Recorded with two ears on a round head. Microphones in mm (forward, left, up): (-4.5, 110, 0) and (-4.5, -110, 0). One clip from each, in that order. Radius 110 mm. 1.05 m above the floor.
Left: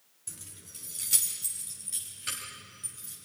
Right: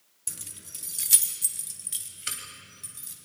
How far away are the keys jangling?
About 0.7 m.